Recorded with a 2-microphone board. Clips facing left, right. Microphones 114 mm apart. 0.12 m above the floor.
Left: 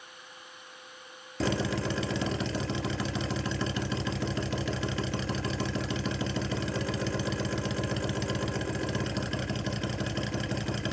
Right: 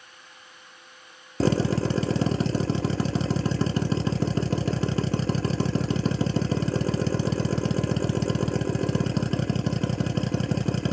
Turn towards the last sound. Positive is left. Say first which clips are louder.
# right 6 dB
turn(degrees=-40)  # may be behind; listen again after turning